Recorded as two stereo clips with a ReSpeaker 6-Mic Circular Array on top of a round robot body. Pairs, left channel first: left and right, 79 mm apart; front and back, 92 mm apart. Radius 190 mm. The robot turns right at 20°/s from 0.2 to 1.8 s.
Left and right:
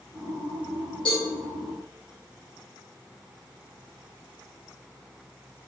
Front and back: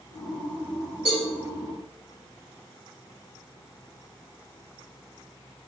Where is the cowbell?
105° left, 0.6 m; by 1.2 s 110° left, 0.6 m.